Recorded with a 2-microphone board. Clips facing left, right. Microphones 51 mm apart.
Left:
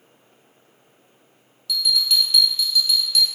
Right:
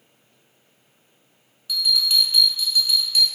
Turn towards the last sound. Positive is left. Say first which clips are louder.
# even
turn(degrees=-15)  # may be behind; listen again after turning